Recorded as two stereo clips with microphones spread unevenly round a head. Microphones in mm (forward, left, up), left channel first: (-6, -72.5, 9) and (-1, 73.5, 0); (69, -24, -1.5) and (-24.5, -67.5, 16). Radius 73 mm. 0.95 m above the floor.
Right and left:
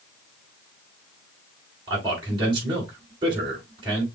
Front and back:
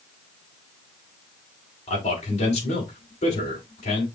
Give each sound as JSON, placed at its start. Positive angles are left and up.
{"t": 1.9, "sound": "a man speaking", "azimuth_deg": 25, "distance_m": 5.0}